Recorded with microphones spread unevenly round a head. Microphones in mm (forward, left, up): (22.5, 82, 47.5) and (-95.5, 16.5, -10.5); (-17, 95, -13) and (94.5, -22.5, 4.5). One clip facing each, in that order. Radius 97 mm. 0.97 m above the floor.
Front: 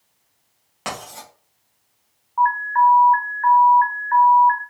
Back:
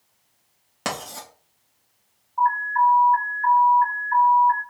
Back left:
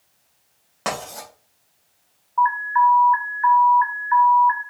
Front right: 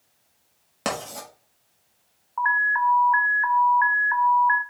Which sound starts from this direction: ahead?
An alarm, at 2.4 s.